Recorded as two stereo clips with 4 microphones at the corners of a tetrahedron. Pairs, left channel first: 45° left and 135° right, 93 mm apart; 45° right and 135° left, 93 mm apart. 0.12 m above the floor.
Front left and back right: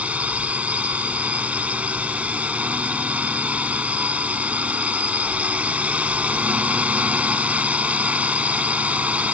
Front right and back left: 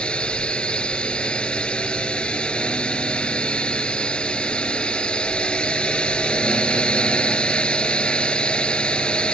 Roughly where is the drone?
Right.